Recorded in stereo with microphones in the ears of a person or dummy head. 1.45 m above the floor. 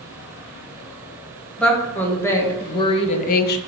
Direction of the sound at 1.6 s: Centre (ahead or behind).